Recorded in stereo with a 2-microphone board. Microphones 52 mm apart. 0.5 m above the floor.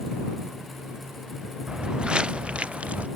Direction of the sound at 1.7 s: 15° right (ahead or behind).